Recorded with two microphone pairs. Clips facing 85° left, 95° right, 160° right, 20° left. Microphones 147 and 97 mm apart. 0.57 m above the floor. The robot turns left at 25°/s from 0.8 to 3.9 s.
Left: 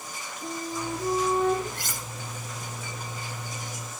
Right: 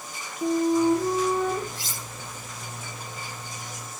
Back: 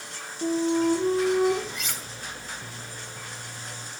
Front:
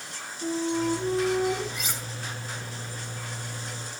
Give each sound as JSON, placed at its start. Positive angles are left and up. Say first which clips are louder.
{"t": 0.4, "sound": "a flute", "louder": "right 13 dB, back 4 dB", "azimuth_deg": -120, "distance_m": 4.0}
{"t": 1.7, "sound": "cutlery clinking", "louder": "left 1 dB, front 1 dB", "azimuth_deg": 110, "distance_m": 3.0}